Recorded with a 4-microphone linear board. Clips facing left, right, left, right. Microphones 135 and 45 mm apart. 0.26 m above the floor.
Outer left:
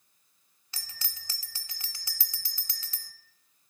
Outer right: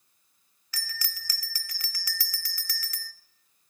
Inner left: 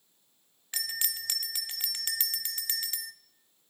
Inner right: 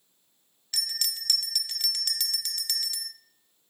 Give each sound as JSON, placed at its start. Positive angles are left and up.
{"t": 0.7, "sound": "a bell", "side_deg": 25, "distance_m": 0.7}